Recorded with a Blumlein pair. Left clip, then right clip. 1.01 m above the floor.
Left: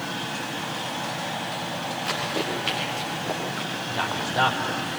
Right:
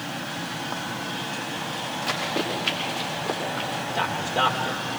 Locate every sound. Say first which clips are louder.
2.1 s running footsteps: right 1 dB; straight ahead, 6.5 m; by 3.7 s 5° right, 7.5 m
3.9 s a man speaking: left 1 dB; 10° right, 4.5 m